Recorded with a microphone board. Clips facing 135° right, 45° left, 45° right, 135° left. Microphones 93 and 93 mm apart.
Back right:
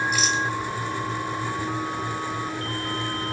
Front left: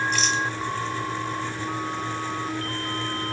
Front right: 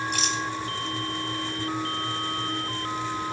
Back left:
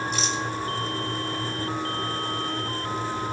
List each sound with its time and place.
0.1 s a rattle: 55° right, 1.7 m